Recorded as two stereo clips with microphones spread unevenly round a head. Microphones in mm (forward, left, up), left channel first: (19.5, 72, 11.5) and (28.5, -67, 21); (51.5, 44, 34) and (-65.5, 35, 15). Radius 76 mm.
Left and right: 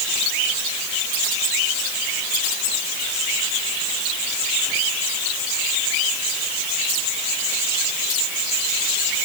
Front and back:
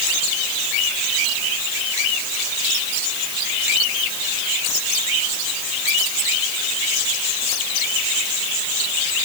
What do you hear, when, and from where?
Only background noise.